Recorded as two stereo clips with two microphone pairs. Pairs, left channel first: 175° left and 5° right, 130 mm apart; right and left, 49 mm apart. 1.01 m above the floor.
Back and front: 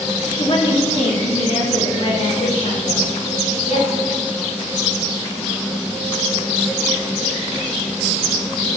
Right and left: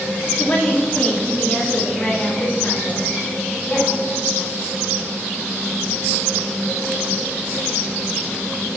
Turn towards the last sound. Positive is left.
turn(degrees=-160)